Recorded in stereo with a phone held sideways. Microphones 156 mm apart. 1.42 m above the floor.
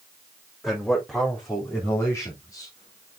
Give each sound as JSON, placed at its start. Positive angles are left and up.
{"t": 0.6, "sound": "a man speaking", "side_deg": 5, "distance_m": 4.0}